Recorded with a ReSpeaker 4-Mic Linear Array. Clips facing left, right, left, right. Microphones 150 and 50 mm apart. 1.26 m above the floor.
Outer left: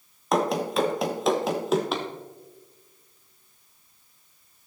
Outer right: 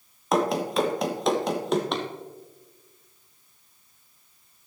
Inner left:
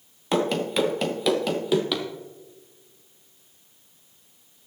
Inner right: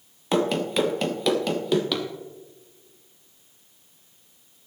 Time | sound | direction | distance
0.3 | running footsteps | centre (ahead or behind) | 1.3 m